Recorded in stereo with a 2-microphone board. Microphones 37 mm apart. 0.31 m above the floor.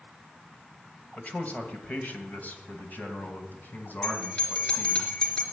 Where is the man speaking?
40° left (ahead or behind), 1.7 m; by 5.0 s 60° left (ahead or behind), 3.5 m.